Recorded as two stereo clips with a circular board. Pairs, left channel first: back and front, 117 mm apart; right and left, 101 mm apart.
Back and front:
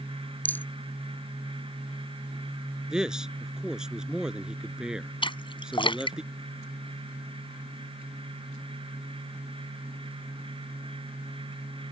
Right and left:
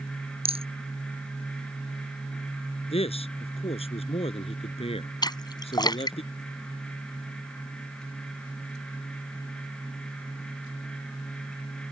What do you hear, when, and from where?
0.5 s a rattle: 105° left
2.9 s a man speaking: 85° right
5.2 s a splash: 135° right